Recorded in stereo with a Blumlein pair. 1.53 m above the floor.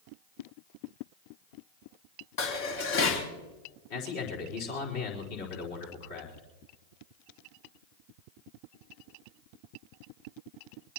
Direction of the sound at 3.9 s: 50° left.